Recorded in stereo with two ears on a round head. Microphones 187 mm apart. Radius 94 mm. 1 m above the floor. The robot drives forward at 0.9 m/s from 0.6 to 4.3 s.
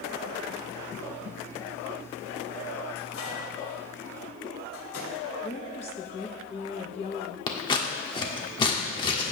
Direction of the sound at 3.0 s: 75° left (ahead or behind).